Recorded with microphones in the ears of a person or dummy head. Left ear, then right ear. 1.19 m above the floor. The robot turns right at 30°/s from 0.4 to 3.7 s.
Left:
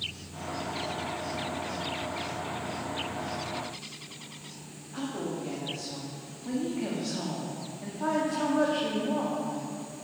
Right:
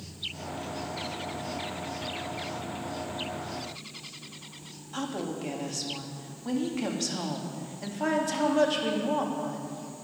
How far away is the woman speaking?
About 1.9 m.